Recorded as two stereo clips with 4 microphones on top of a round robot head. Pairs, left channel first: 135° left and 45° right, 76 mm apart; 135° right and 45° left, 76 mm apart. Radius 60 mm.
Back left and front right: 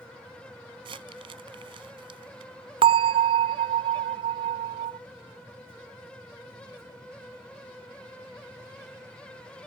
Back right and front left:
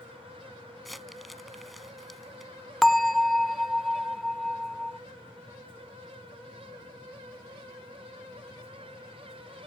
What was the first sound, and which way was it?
Crumpling, 45° right.